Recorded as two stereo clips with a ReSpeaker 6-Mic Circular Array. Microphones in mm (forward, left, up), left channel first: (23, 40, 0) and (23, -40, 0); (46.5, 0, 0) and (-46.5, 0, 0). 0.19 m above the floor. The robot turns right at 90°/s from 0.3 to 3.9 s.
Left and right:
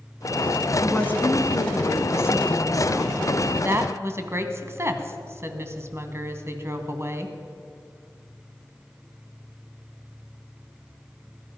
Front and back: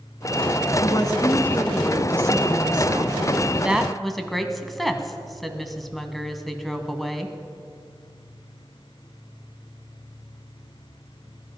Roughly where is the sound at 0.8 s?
Ahead.